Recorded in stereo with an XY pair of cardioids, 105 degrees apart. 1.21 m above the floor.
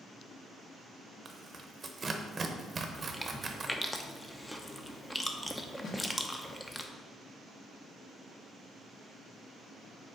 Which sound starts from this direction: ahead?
Chewing, at 3.0 s.